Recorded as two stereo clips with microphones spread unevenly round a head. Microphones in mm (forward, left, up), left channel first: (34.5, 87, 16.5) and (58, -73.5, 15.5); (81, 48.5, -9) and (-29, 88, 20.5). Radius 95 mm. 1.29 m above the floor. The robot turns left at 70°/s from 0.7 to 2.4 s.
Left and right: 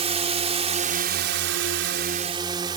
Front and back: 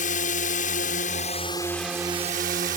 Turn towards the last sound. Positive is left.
turn(degrees=-150)